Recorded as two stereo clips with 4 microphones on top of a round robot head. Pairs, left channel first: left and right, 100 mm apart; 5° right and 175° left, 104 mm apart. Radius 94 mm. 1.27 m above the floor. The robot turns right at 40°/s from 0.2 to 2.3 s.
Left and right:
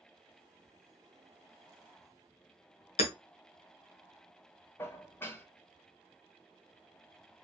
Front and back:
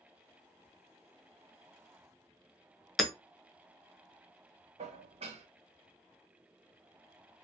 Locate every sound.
3.0 s hammering: 85° left, 0.8 m
4.8 s dishes clattering: 155° left, 0.6 m